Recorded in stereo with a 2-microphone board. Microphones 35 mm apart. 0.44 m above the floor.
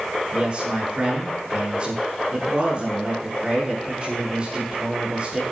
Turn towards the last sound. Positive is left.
turn(degrees=-25)  # may be behind; listen again after turning